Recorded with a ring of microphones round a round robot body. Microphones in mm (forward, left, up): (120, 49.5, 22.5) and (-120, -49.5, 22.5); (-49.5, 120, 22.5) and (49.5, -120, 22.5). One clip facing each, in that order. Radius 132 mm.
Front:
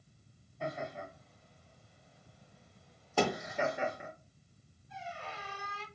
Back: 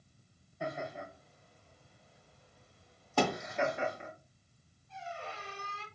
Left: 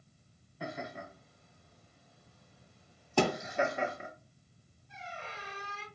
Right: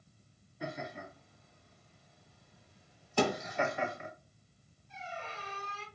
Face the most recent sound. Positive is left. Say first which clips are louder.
# back 1 dB, right 2 dB
turn(degrees=105)